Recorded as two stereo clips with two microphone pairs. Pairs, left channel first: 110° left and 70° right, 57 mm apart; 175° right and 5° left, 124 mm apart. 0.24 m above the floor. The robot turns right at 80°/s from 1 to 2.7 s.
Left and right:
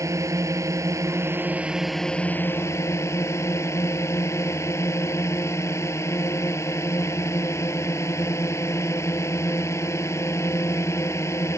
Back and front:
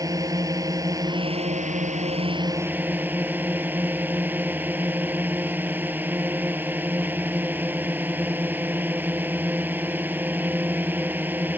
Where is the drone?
55° right; by 11.6 s 80° left.